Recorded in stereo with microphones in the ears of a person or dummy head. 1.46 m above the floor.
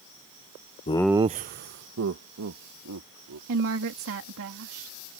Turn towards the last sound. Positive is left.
turn(degrees=-75)  # may be behind; listen again after turning